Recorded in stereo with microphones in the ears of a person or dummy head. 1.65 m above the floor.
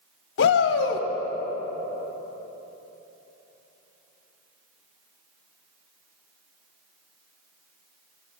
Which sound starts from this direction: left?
A shout, at 0.4 s.